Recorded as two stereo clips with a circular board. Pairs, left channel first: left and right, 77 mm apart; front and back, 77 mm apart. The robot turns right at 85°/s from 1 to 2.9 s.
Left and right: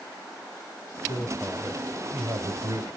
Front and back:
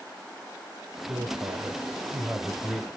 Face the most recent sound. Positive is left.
turn(degrees=-60)